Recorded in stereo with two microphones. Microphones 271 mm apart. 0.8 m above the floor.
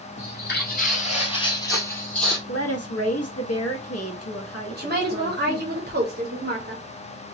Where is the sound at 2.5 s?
60° left (ahead or behind), 0.9 m.